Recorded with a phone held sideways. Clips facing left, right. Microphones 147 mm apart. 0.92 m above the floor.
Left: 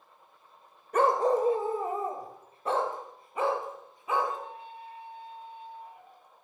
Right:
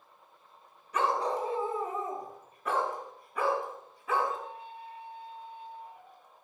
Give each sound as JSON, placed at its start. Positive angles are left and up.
{"t": 0.9, "sound": "a dog barking", "side_deg": 50, "distance_m": 1.6}